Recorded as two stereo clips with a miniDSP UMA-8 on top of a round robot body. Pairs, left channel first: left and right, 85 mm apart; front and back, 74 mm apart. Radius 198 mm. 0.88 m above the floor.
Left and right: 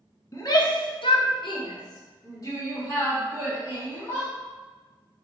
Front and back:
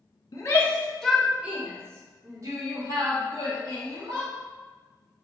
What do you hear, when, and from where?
0.3 s a shout: 45° left, 1.2 m; by 4.3 s 150° left, 3.5 m